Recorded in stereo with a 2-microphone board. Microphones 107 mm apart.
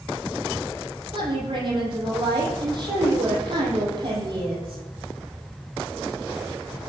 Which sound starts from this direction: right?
A woman speaking, at 1.1 s.